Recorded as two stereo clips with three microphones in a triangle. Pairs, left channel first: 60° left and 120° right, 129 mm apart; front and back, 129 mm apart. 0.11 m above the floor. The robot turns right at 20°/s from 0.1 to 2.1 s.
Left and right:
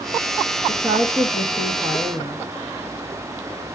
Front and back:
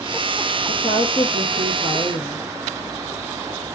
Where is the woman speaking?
55° right, 2 m; by 2.4 s 25° right, 2 m.